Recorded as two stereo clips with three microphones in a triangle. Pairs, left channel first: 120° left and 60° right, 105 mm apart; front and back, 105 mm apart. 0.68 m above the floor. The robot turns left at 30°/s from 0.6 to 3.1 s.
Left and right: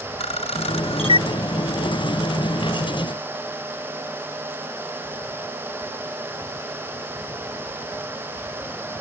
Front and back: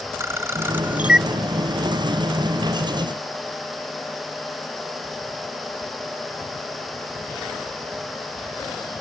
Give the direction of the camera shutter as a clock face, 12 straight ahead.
8 o'clock.